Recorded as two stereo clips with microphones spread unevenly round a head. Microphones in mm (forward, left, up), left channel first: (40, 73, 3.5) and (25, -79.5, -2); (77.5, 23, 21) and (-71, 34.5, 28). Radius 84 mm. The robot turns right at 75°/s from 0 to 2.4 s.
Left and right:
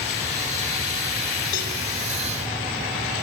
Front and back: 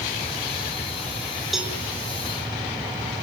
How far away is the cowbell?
About 5.5 m.